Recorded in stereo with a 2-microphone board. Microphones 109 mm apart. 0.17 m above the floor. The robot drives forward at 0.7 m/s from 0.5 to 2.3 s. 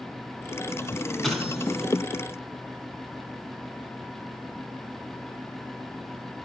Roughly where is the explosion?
Centre.